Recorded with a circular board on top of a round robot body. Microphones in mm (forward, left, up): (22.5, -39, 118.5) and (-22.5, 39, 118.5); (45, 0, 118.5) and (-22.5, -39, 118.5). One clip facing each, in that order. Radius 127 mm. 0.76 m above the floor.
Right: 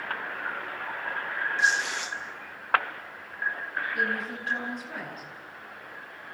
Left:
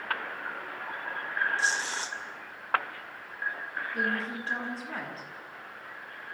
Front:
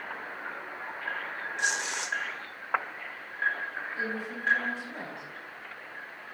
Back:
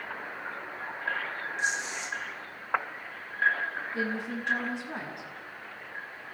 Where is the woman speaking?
Straight behind, 9 m.